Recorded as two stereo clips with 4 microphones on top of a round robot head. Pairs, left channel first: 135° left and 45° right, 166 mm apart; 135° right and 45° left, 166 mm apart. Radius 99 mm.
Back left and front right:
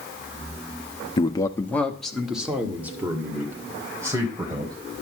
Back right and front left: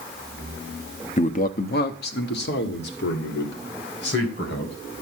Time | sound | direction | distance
1.2 | a man speaking | 175° right | 0.9 m